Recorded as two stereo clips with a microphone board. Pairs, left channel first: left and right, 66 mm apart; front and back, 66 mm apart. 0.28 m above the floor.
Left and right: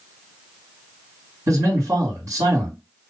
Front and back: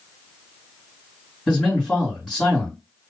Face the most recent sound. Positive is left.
turn(degrees=-90)